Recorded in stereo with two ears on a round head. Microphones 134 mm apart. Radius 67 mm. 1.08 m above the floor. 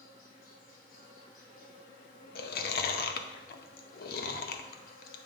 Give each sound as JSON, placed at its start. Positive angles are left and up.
{"t": 0.0, "sound": "an insect", "side_deg": 65, "distance_m": 1.4}
{"t": 2.4, "sound": "chewing", "side_deg": 70, "distance_m": 0.7}